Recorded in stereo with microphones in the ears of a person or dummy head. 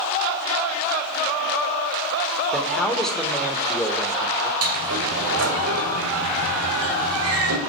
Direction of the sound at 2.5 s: 5° left (ahead or behind).